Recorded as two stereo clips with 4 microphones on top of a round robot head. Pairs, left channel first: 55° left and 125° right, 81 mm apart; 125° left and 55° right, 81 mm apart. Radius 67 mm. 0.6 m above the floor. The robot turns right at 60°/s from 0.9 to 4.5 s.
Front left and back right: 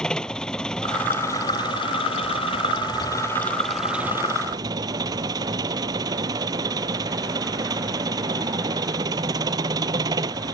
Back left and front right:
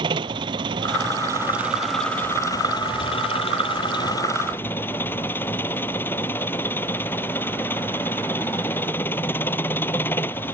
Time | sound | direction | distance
0.0 | an engine running | 25° right | ?